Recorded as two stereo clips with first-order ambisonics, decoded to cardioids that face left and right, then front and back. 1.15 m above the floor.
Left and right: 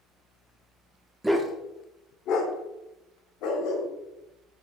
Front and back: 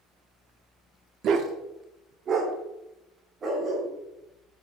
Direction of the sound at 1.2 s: 170° right.